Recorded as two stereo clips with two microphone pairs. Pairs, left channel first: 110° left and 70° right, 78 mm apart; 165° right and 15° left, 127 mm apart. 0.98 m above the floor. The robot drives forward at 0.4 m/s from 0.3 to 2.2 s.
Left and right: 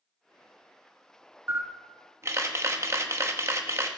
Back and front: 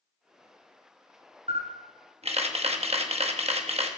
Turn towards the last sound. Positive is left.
turn(degrees=-20)